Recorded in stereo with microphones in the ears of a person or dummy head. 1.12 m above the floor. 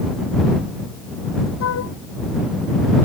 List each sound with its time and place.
1.6 s a flute: 80° left